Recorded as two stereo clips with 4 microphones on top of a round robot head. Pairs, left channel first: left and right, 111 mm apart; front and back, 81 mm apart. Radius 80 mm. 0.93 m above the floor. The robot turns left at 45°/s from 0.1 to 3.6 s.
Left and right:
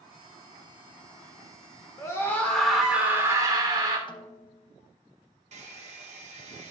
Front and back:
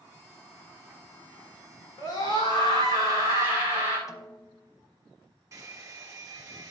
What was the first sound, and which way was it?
A scream, 35° left.